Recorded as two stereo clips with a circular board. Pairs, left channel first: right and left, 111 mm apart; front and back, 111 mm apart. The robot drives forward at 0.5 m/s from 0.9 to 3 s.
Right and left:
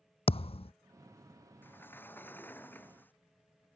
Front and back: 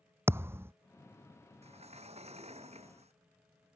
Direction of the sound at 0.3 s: 115° right.